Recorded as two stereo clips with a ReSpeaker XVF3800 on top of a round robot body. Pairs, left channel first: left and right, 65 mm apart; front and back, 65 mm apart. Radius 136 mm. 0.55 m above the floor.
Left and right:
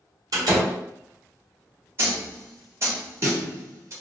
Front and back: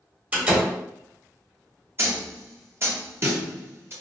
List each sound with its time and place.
0.3 s a door slam: 115° right, 1.4 m
2.0 s a snare drum: 130° right, 1.4 m